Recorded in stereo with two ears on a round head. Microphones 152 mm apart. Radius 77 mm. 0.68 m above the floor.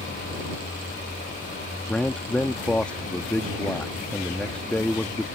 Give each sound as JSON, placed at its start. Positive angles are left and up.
{"t": 1.9, "sound": "a man speaking", "side_deg": 5}